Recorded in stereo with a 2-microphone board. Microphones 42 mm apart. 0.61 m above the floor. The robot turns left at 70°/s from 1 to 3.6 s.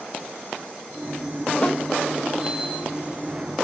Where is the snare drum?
25° left (ahead or behind), 1.2 m; by 1.8 s 15° left (ahead or behind), 1.2 m.